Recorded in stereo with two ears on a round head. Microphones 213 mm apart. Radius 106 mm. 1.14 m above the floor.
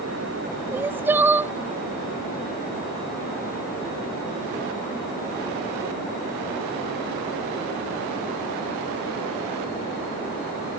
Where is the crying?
10° right (ahead or behind).